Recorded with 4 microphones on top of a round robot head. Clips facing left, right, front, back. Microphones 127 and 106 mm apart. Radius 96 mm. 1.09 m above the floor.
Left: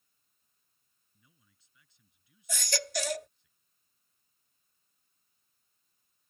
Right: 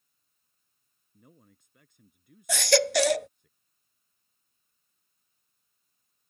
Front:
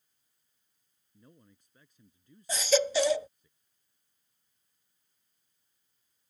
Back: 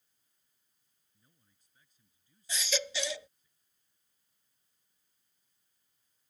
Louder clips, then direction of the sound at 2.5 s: Right 13 dB, front 11 dB; 65° right.